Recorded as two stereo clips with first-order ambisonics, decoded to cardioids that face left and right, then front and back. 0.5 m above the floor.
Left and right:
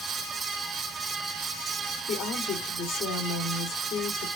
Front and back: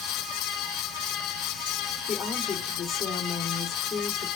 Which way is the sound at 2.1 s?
65° left.